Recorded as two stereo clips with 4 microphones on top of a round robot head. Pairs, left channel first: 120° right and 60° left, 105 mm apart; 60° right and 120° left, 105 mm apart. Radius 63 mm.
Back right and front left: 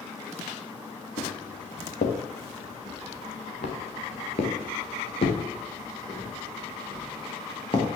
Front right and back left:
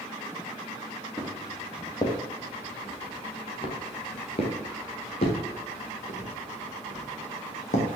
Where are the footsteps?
120° right, 3 m; by 7.9 s 70° right, 4.5 m.